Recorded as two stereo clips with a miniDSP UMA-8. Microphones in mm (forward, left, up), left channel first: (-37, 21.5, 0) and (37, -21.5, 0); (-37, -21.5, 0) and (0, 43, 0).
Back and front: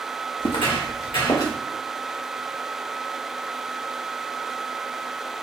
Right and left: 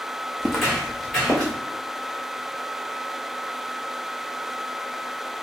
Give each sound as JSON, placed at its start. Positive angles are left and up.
{"t": 0.4, "sound": "footsteps", "azimuth_deg": 140, "distance_m": 1.0}